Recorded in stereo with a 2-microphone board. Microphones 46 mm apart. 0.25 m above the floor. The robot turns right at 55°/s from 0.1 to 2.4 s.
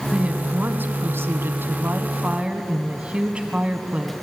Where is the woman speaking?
160° right, 1.5 m; by 4.1 s 30° right, 1.5 m.